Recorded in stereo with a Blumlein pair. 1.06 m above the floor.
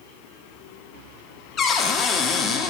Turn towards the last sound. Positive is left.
turn(degrees=25)